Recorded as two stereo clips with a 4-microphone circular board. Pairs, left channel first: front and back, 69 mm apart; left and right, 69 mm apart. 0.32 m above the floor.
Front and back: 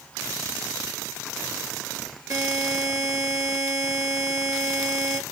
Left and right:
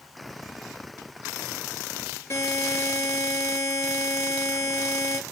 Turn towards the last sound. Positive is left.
turn(degrees=140)